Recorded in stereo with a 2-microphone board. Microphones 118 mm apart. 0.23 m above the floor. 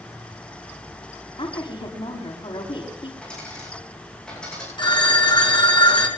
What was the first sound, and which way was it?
A woman speaking, 50° left (ahead or behind).